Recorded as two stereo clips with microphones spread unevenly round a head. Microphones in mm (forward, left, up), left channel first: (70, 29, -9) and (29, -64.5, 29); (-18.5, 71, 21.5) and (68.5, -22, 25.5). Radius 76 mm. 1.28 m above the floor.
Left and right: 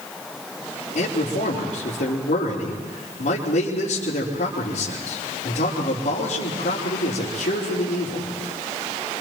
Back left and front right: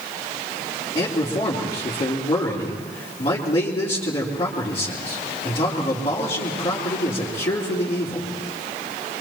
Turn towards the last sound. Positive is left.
turn(degrees=85)